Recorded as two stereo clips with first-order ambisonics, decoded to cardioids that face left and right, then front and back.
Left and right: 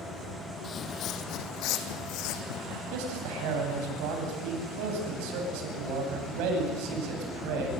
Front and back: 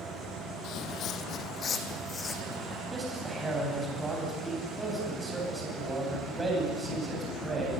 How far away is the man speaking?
About 8.5 m.